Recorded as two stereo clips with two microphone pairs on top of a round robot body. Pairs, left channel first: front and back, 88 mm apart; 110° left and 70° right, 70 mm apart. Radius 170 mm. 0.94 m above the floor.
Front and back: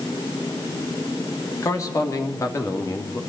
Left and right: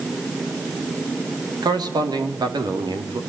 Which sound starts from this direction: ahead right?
A man speaking, at 1.6 s.